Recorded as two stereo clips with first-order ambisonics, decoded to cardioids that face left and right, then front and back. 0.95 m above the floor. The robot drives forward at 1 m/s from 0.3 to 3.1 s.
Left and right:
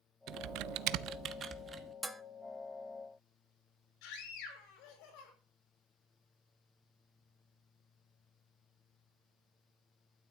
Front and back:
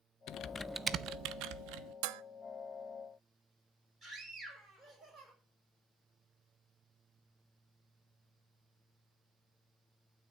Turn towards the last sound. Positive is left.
turn(degrees=115)